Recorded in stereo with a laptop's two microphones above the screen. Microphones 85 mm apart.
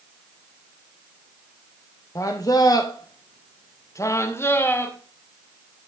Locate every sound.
2.1 s a man speaking: 40° left (ahead or behind), 0.9 m; by 5.0 s 25° left (ahead or behind), 1.2 m